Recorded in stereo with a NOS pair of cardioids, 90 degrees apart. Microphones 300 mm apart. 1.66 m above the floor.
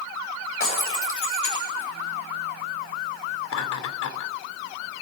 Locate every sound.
0.6 s breaking glass: 45° left, 8.5 m
3.5 s laughter: 70° left, 3.5 m